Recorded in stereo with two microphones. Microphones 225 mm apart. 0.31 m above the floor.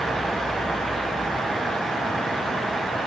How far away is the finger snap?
No finger snap in this recording.